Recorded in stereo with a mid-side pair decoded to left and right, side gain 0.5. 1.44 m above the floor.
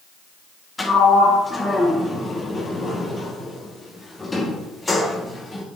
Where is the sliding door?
20° left, 1.8 m.